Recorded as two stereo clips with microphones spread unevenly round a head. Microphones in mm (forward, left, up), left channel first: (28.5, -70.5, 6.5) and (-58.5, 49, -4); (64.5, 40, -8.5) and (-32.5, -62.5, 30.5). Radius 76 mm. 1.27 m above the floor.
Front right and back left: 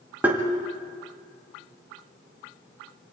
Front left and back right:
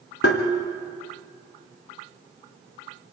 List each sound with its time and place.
0.2 s tapping: 45° left, 1.8 m